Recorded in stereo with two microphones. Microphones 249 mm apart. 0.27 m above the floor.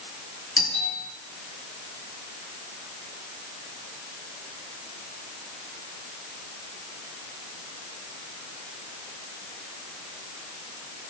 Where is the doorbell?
65° left (ahead or behind), 7.5 m.